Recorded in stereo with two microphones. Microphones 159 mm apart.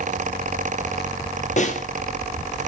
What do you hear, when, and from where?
1.6 s a snare drum: 50° left (ahead or behind), 1.3 m